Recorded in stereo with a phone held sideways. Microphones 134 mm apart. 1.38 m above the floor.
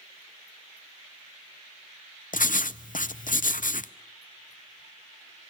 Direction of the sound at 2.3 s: 80° left.